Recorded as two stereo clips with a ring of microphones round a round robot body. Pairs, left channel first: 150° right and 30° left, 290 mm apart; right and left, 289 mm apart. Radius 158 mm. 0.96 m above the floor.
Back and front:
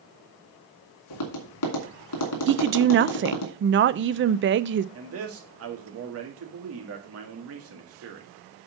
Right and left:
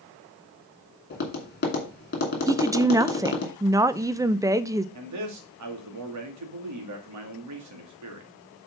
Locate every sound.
1.1 s tapping: 145° right, 2.5 m
2.5 s a woman speaking: 15° left, 0.5 m
5.0 s a man speaking: 65° left, 2 m